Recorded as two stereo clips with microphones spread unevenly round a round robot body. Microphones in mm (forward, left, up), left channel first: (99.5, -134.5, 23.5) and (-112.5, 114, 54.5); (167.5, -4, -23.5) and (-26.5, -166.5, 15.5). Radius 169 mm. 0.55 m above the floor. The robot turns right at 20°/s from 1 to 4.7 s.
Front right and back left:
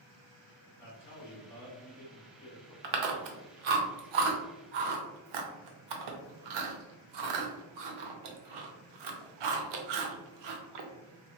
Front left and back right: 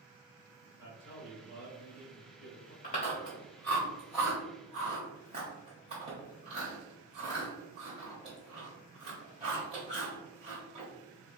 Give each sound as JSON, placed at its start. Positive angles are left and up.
{"t": 0.8, "sound": "a man speaking", "azimuth_deg": -20, "distance_m": 1.4}
{"t": 2.8, "sound": "chewing", "azimuth_deg": 110, "distance_m": 0.8}